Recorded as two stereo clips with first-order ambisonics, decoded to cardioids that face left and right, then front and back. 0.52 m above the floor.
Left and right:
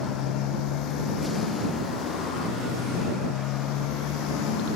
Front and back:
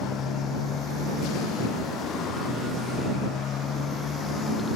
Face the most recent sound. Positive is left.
turn(degrees=60)